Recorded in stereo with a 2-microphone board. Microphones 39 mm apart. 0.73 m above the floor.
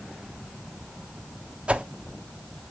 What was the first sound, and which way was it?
A whoosh, 35° right (ahead or behind).